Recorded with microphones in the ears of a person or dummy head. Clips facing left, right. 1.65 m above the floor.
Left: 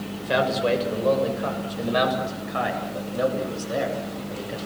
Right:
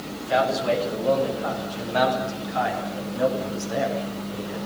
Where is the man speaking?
65° left (ahead or behind), 7.5 m; by 4.6 s 60° left (ahead or behind), 10 m.